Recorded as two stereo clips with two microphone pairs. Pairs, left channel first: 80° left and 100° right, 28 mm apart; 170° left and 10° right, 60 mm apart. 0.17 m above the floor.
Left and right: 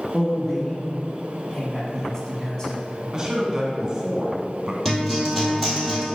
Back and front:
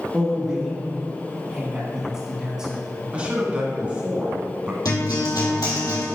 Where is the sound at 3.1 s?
65° right, 1.3 m.